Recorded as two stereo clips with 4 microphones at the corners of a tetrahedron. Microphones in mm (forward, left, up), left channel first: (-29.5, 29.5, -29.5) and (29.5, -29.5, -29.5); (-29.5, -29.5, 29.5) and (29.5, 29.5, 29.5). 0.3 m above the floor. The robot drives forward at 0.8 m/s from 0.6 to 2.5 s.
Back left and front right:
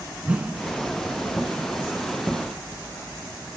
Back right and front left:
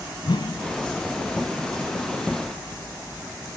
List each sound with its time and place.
0.2 s a whoosh: 120° right, 0.7 m; by 0.6 s 125° right, 0.7 m